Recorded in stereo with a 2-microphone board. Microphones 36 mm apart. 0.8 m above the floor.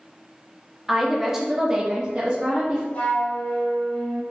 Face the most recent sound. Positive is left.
turn(degrees=35)  # may be behind; listen again after turning